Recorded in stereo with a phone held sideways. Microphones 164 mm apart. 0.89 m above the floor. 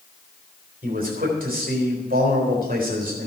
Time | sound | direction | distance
0.8 | a man speaking | 60° right (ahead or behind) | 4 m